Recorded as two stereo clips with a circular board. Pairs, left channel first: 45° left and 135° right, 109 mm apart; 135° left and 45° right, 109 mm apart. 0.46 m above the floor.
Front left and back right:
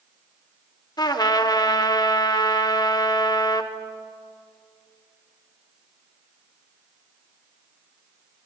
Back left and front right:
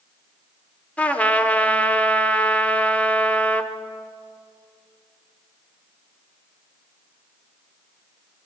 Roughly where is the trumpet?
Ahead left.